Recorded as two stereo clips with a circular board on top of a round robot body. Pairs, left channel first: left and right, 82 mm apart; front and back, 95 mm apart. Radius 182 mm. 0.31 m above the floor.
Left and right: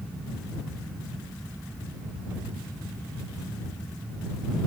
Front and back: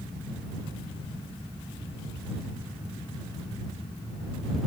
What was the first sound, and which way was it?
Only background noise.